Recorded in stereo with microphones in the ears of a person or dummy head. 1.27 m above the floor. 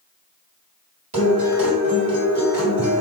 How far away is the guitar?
About 1.9 m.